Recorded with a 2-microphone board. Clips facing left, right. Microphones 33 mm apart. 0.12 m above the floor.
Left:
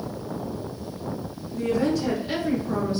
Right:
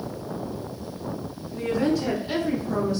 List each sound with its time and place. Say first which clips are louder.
1.5 s a woman speaking: even; 20° right (ahead or behind), 1.8 m; by 3.0 s 35° left (ahead or behind), 1.8 m